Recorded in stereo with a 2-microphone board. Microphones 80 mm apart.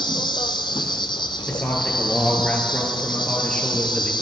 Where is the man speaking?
15° left (ahead or behind), 2 m.